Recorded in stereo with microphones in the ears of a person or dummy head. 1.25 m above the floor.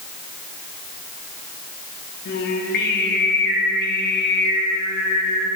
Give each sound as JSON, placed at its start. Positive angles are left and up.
{"t": 2.2, "sound": "singing", "side_deg": 55, "distance_m": 1.2}